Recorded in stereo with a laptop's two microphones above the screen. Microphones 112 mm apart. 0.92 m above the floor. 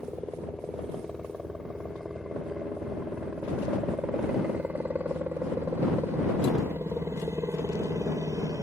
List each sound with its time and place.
0.0 s a helicopter: 5° left (ahead or behind); by 8.6 s 35° right (ahead or behind)